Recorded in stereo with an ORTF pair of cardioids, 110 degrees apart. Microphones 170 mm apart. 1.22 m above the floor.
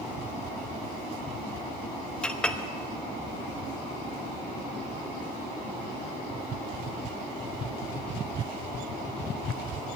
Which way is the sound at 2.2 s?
5° left.